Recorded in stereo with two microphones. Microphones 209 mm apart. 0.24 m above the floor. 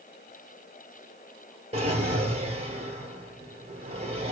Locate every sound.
1.7 s a drawer: 30° right (ahead or behind), 2.0 m